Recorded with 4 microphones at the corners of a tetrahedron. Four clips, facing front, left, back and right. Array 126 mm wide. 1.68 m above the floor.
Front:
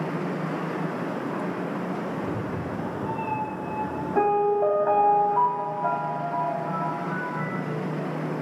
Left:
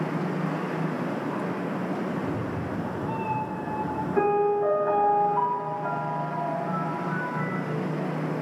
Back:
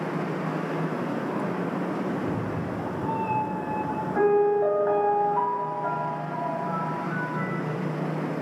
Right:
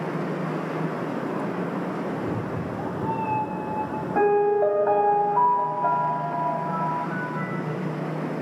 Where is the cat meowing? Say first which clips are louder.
Right 1 dB, back 1 dB; 85° right, 4.5 m.